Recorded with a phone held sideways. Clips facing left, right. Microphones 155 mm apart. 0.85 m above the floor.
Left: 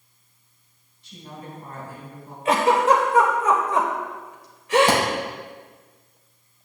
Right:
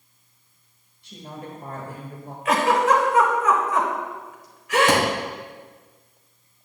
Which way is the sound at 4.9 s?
35° left (ahead or behind).